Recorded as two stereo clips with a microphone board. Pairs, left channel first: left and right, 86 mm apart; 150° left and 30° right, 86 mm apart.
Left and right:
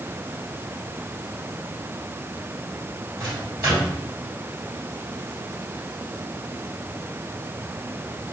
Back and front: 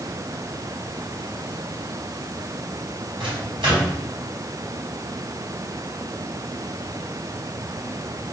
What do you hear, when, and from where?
3.2 s a microwave: 40° right, 2 m